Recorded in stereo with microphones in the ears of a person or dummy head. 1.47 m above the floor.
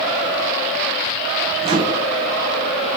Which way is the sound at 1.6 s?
25° right (ahead or behind).